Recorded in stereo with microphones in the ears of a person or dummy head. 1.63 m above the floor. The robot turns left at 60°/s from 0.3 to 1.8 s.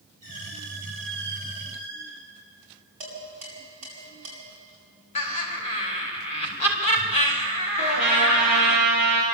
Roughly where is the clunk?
I don't hear a clunk.